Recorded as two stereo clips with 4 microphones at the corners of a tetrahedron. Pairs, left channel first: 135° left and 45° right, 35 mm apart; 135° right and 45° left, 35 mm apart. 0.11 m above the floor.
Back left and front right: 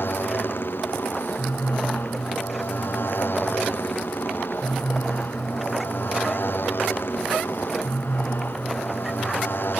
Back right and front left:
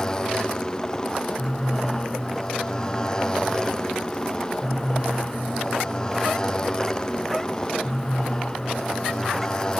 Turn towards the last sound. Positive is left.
turn(degrees=155)